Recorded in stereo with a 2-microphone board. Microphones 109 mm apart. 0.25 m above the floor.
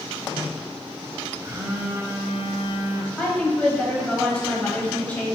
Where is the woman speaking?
10° left (ahead or behind), 1.0 m.